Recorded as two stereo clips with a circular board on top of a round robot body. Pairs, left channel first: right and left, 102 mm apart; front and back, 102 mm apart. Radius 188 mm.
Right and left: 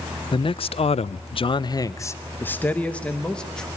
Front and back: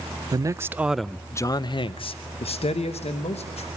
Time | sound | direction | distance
0.3 | a man speaking | 125° right | 0.7 m